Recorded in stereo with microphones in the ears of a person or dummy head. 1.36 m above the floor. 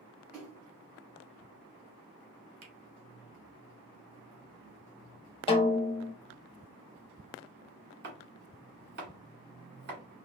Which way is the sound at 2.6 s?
80° right.